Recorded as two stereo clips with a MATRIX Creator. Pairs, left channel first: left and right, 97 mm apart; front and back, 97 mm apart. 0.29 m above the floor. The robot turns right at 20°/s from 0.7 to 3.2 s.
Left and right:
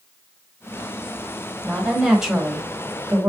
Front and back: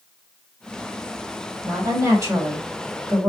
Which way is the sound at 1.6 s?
175° left.